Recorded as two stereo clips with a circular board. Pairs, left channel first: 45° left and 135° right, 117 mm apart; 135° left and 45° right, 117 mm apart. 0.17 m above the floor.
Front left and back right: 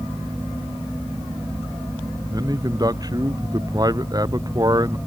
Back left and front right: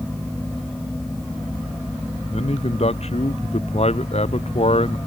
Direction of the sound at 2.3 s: 165° left.